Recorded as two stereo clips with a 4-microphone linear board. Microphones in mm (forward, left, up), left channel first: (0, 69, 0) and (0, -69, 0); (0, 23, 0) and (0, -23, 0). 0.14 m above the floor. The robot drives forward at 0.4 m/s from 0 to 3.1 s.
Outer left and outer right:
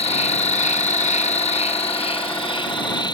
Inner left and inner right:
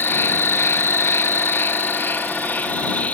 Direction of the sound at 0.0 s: 55° left (ahead or behind).